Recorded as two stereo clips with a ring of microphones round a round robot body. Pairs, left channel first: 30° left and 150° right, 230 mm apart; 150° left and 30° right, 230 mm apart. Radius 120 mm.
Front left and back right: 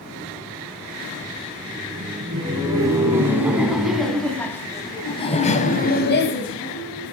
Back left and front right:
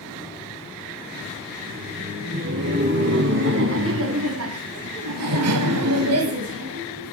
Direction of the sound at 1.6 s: 80° right.